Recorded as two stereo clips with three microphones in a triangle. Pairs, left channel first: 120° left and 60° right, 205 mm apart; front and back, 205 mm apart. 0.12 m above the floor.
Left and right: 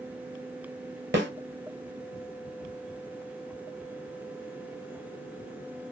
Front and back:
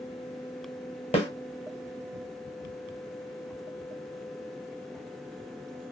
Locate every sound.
1.1 s a snare drum: 55° right, 1.1 m